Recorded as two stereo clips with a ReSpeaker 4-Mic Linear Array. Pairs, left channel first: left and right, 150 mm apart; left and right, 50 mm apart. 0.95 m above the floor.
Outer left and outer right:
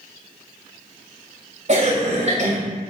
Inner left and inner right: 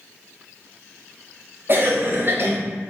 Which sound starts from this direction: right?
A cough, at 1.7 s.